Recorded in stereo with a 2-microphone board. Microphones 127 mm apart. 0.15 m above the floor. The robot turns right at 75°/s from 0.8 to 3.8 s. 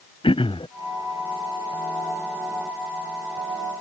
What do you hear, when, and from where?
0.2 s throat clearing: 45° left (ahead or behind)